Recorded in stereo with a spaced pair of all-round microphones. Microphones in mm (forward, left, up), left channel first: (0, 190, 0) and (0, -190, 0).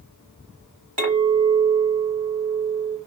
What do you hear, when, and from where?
1.0 s a clink: 60° right (ahead or behind), 1.8 m